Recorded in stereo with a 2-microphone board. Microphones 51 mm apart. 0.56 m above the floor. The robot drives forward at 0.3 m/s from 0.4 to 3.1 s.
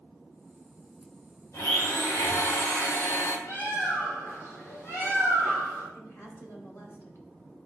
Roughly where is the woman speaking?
Left.